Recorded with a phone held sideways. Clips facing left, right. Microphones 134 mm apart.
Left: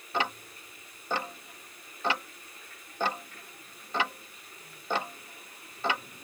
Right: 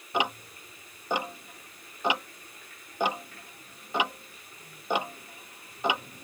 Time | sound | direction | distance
0.1 | ticking | 15° right (ahead or behind) | ?